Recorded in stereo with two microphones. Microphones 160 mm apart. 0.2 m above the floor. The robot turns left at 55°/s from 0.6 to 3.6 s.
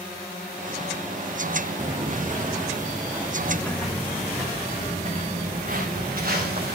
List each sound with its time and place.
1.8 s footsteps: 25° right (ahead or behind), 1.0 m; by 4.4 s centre (ahead or behind), 3 m
3.4 s footsteps: 20° right (ahead or behind), 1.7 m; by 6.8 s 70° right (ahead or behind), 2.5 m